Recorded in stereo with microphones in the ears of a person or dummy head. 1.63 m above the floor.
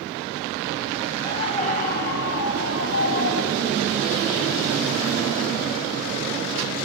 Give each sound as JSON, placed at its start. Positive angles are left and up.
{"t": 1.2, "sound": "a scream", "side_deg": 25, "distance_m": 1.6}